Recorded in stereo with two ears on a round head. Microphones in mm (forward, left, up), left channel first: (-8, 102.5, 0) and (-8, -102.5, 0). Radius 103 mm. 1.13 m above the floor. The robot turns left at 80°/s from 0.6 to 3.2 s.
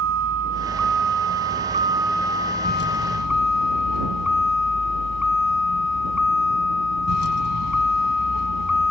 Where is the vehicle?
55° right; by 8.9 s 95° left.